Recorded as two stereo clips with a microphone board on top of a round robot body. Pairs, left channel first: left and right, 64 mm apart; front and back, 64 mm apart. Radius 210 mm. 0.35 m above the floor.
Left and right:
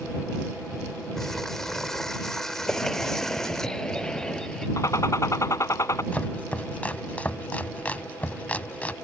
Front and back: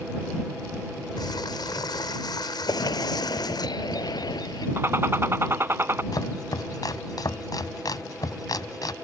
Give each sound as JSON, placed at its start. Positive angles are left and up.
{"t": 1.2, "sound": "crumpling", "azimuth_deg": 5}
{"t": 2.7, "sound": "a bird", "azimuth_deg": 10}
{"t": 4.8, "sound": "a gunshot", "azimuth_deg": 130}
{"t": 6.1, "sound": "chopping", "azimuth_deg": 20}